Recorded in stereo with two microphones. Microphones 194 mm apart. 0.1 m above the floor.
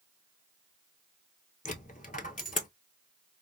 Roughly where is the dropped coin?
Left.